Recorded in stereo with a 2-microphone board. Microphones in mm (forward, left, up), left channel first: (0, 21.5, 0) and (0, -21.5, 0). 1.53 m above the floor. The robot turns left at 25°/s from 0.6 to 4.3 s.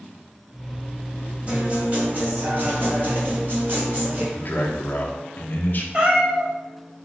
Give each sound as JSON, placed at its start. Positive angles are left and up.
{"t": 1.5, "sound": "a guitar", "azimuth_deg": -35, "distance_m": 1.9}
{"t": 4.3, "sound": "a man speaking", "side_deg": 45, "distance_m": 0.9}
{"t": 5.9, "sound": "a cat meowing", "side_deg": -30, "distance_m": 1.1}